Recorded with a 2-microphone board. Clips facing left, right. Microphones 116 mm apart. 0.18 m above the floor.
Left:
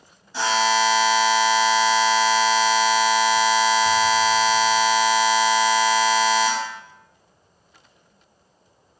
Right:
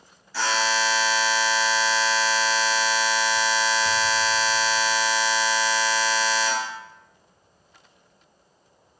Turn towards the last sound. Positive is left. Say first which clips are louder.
# left 4 dB
turn(degrees=25)  # may be behind; listen again after turning